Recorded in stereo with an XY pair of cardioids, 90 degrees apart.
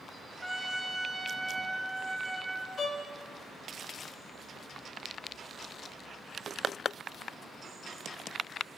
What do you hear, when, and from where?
0.4 s a trumpet: 5° right, 3.5 m
2.8 s a violin: 50° left, 4 m